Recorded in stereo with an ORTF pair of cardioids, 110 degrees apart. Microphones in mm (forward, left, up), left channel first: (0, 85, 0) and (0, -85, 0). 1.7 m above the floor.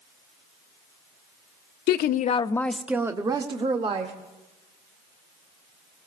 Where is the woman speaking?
70° left, 0.6 m; by 4.1 s 35° right, 1.5 m.